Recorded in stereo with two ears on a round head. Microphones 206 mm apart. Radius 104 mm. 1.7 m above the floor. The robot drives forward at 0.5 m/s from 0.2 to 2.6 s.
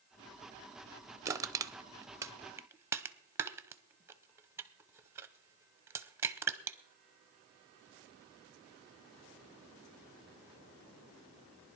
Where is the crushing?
15° right (ahead or behind), 0.6 m; by 6.8 s 10° right (ahead or behind), 0.7 m.